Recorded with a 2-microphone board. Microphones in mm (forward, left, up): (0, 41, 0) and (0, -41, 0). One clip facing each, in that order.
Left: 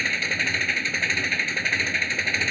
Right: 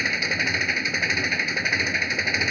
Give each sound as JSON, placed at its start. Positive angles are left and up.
{"t": 0.0, "sound": "an engine running", "side_deg": -10}